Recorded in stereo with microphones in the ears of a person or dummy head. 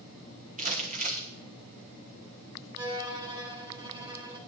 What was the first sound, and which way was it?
Crumpling, 45° right (ahead or behind).